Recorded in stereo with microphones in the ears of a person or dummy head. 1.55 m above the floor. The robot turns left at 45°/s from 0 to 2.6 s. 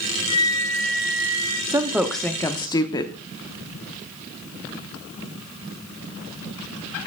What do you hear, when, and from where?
0.3 s a flute: 25° left, 1.7 m; by 1.6 s 30° right, 1.7 m
1.7 s a woman speaking: 160° right, 0.8 m; by 3.2 s 160° left, 0.8 m